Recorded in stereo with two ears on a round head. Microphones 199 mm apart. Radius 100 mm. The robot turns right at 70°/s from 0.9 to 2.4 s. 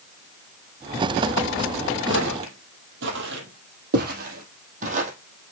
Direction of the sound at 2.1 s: 60° right (ahead or behind).